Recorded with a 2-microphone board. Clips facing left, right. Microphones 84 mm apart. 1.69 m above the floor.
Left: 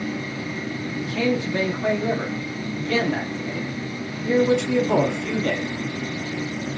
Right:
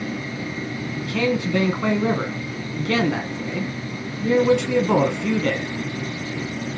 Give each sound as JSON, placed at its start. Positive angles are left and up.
{"t": 1.0, "sound": "a man speaking", "side_deg": -75, "distance_m": 1.0}